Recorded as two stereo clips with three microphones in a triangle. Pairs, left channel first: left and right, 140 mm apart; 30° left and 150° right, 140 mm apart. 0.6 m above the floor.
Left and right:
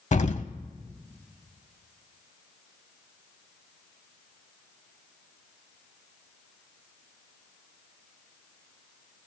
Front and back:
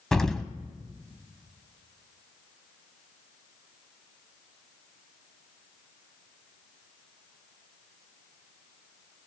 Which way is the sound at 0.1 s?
115° left.